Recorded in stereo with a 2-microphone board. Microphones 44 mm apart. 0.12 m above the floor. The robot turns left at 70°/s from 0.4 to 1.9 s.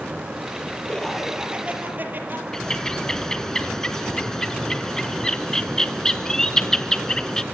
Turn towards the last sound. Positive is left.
turn(degrees=10)  # may be behind; listen again after turning